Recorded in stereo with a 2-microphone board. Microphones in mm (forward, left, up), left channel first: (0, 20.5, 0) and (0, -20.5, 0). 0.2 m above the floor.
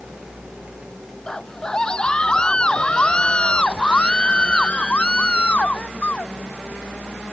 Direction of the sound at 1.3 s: 20° left (ahead or behind).